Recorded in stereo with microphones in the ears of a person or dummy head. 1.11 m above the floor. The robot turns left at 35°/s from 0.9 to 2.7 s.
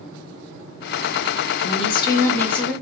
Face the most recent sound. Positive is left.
turn(degrees=0)